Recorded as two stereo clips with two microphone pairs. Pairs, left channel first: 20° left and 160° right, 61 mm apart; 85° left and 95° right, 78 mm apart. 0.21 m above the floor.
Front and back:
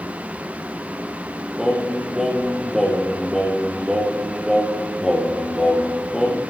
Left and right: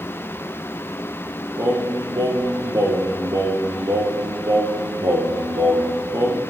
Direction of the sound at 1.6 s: 80° right.